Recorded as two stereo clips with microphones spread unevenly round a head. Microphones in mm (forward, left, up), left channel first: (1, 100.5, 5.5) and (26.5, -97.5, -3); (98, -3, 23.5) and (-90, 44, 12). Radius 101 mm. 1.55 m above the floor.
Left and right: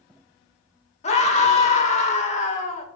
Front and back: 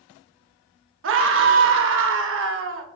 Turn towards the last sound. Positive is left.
turn(degrees=155)